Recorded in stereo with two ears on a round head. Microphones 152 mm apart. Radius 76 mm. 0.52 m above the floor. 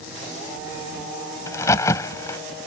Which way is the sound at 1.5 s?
20° left (ahead or behind).